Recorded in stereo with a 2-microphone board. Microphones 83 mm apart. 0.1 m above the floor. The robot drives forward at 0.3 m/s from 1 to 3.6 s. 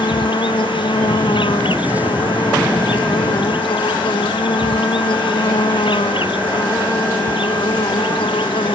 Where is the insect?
75° left (ahead or behind); by 8.8 s 80° left.